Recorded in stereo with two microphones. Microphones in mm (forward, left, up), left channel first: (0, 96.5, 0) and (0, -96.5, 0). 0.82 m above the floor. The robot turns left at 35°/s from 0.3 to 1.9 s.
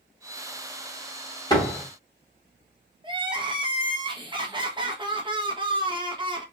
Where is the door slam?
20° left (ahead or behind), 1.2 m; by 1.9 s 10° left (ahead or behind), 1.2 m.